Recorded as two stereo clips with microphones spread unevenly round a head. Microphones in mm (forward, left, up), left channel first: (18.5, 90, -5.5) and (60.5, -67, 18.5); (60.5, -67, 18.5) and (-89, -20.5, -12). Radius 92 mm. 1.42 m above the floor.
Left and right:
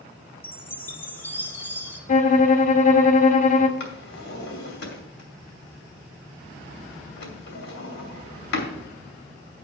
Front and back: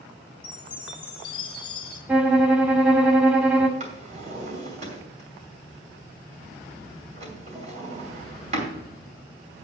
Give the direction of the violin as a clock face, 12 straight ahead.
10 o'clock.